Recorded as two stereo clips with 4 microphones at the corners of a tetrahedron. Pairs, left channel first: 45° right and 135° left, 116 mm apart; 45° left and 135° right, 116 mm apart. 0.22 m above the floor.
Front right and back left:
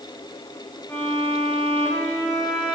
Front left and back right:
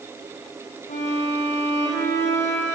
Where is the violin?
25° left, 5.5 m.